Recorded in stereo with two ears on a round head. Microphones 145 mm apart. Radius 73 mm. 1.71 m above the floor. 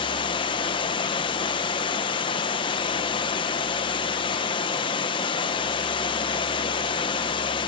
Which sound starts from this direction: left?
Running water, at 0.0 s.